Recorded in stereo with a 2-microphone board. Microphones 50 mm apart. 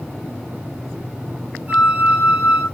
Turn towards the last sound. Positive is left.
turn(degrees=-35)  # may be behind; listen again after turning